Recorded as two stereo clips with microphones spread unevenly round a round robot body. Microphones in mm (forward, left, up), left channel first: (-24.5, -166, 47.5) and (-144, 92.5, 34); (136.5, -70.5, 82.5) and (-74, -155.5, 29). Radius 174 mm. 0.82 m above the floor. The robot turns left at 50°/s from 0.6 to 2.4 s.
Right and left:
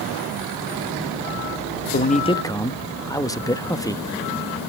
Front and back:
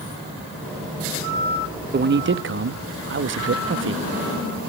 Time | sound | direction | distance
1.9 | a man speaking | 120° right | 1.0 m